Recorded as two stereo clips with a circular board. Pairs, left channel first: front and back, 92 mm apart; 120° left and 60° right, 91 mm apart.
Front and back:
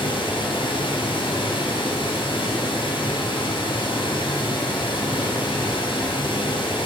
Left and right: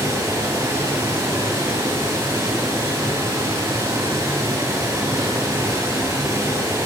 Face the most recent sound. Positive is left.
turn(degrees=-5)